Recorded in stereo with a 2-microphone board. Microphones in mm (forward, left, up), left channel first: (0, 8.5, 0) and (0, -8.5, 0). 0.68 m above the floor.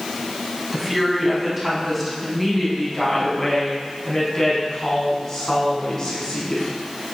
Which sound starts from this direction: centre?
A woman speaking, at 0.7 s.